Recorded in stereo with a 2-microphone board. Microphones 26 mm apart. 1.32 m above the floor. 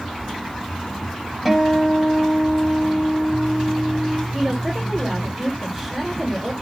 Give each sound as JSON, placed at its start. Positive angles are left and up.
{"t": 1.4, "sound": "a guitar", "side_deg": -5, "distance_m": 4.5}
{"t": 4.3, "sound": "a woman speaking", "side_deg": -5, "distance_m": 2.5}